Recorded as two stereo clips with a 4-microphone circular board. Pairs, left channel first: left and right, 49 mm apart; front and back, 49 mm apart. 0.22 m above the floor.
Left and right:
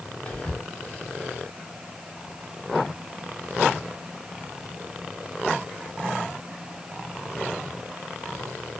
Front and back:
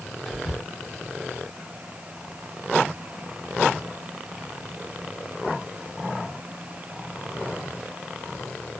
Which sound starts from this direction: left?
Whispering, at 0.2 s.